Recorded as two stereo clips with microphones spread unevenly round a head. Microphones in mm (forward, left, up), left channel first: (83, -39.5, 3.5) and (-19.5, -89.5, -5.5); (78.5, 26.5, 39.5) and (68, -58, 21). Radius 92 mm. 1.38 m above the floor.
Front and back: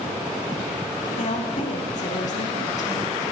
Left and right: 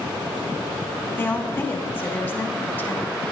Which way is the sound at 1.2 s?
15° left.